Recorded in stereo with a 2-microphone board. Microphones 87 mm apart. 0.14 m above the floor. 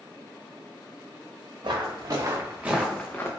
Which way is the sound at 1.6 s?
60° right (ahead or behind).